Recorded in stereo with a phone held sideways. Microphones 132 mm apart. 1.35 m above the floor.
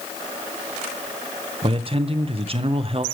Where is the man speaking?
45° right (ahead or behind), 0.7 m.